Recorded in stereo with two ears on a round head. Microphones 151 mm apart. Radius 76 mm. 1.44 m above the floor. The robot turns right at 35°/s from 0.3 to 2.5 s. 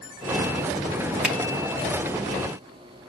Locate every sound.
1.2 s a finger snap: 5° right (ahead or behind), 2 m; by 1.4 s 10° right (ahead or behind), 2 m